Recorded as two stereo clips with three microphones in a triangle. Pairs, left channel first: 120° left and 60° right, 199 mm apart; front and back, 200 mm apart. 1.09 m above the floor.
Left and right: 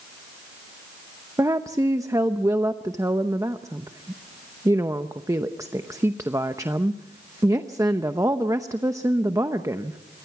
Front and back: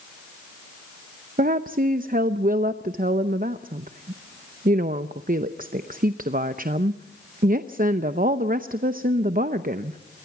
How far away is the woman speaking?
About 0.7 m.